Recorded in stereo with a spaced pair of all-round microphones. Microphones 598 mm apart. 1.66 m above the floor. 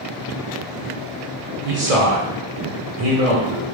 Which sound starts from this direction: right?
A man speaking, at 1.6 s.